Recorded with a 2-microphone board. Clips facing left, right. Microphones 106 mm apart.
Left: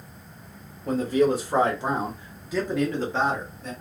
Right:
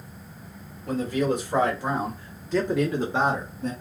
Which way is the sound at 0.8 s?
40° left (ahead or behind).